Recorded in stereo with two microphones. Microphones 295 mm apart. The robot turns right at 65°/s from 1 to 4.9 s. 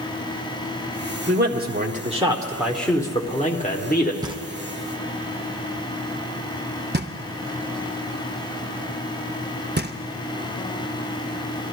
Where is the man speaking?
95° right, 1.1 m; by 4.1 s 90° left, 1.1 m.